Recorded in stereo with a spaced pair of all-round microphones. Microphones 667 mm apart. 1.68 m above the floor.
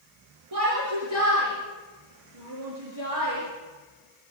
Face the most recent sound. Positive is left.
turn(degrees=-40)  # may be behind; listen again after turning